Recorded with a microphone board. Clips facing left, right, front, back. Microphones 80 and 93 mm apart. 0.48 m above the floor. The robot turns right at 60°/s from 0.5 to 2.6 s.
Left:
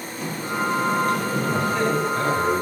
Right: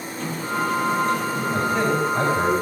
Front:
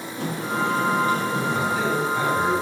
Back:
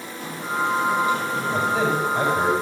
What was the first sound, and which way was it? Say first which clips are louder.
A sliding door: right 1 dB, front 1 dB; 10° left.